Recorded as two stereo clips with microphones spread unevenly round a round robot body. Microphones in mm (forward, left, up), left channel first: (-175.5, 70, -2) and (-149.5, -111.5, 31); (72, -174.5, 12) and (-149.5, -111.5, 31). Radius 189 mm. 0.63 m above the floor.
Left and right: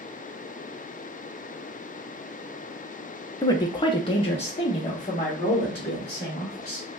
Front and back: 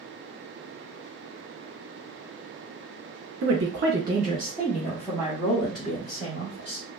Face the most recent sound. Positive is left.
turn(degrees=30)